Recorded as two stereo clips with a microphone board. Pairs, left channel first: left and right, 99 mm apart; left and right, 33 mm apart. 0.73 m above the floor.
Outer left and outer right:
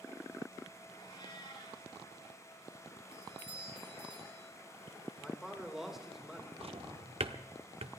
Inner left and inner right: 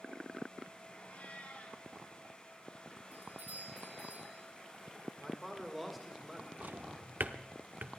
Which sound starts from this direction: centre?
A man speaking, at 5.2 s.